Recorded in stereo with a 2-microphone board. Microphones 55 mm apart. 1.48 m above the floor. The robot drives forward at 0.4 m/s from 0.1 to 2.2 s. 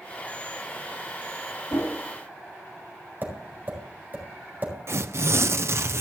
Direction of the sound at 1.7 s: 70° left (ahead or behind).